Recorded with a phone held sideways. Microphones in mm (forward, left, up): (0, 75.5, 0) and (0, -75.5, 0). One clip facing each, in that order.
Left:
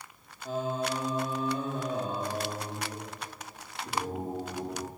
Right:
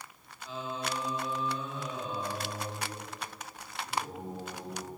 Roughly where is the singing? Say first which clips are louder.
Left 6 dB; left.